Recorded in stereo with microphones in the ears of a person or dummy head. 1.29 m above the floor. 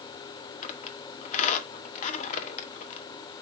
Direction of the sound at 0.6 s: 45° left (ahead or behind).